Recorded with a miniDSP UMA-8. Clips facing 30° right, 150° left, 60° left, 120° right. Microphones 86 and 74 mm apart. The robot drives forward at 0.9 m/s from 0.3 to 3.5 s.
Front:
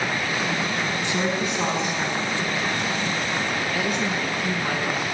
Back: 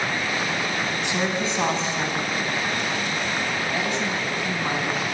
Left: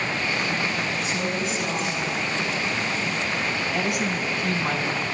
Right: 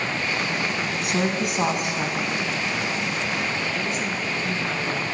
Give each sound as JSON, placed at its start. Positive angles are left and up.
{"t": 1.0, "sound": "a woman speaking", "azimuth_deg": -140, "distance_m": 4.5}
{"t": 3.7, "sound": "a woman speaking", "azimuth_deg": 80, "distance_m": 3.5}